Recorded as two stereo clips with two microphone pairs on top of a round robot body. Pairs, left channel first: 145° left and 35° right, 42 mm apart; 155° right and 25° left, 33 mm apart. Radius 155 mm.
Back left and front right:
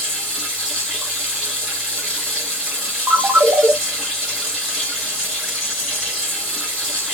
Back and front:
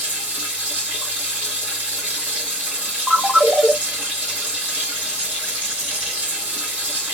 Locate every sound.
0.0 s running water: 50° left, 1.0 m
3.1 s a ringtone: 40° right, 0.9 m